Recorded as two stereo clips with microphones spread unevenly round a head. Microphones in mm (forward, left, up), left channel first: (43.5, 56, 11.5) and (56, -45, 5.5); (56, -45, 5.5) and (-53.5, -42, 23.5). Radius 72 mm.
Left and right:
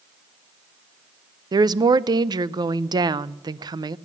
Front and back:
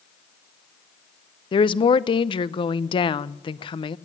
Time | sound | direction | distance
1.5 | a woman speaking | 40° right | 0.6 m